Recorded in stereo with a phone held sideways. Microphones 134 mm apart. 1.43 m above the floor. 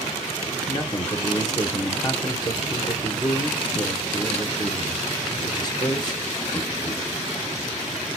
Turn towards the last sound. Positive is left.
turn(degrees=30)  # may be behind; listen again after turning